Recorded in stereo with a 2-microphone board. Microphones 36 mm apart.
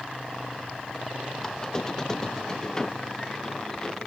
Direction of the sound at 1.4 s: 15° left (ahead or behind).